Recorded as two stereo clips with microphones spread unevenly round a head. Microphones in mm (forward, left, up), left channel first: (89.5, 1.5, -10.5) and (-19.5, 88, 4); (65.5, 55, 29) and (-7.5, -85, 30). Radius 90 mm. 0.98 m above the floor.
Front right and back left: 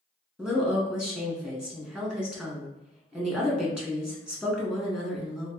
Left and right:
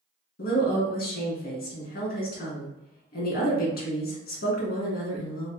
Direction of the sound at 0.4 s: 55° left.